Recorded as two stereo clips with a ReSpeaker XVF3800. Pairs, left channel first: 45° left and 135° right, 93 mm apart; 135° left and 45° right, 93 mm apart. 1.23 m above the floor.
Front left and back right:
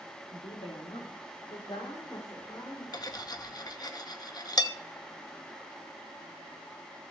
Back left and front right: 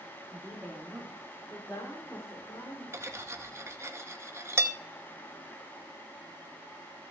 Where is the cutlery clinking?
10° left, 0.7 m.